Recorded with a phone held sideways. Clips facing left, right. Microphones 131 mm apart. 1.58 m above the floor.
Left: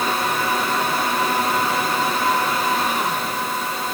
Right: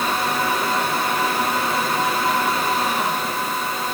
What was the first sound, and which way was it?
Only background noise.